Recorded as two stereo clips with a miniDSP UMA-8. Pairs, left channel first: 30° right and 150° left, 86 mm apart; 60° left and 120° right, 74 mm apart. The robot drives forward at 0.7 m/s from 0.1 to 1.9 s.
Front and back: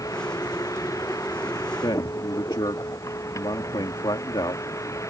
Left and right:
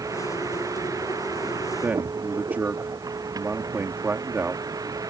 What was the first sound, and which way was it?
A vehicle, 80° right.